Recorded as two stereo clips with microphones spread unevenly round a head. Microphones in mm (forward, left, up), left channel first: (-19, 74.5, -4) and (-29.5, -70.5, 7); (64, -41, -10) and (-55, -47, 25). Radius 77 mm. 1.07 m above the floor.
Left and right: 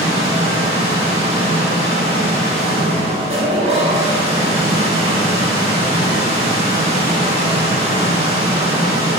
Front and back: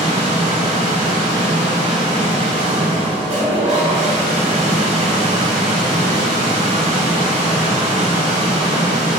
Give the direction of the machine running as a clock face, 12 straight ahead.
5 o'clock.